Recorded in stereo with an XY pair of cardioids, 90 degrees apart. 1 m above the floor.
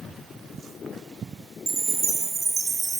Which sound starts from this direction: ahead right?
A chime, at 1.7 s.